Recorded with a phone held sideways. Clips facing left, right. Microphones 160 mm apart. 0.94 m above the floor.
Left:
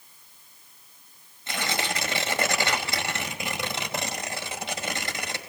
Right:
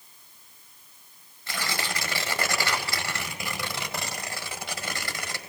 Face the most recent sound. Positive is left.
turn(degrees=20)  # may be behind; listen again after turning